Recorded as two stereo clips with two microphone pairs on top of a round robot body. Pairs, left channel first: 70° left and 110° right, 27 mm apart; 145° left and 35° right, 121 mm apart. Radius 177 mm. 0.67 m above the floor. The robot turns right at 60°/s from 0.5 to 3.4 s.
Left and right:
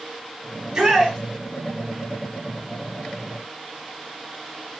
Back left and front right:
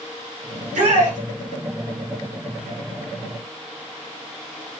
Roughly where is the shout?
Ahead right.